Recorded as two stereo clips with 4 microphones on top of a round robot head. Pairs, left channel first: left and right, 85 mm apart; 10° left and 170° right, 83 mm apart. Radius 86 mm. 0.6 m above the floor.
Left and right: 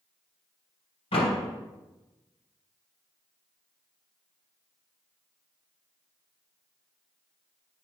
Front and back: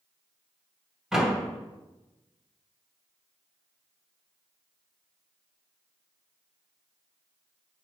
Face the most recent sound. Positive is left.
turn(degrees=105)